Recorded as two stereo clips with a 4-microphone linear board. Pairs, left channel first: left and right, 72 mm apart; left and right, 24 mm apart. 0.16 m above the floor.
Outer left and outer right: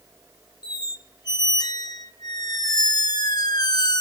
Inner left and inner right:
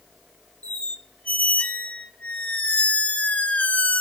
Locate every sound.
0.6 s a squeak: 70° left (ahead or behind), 0.6 m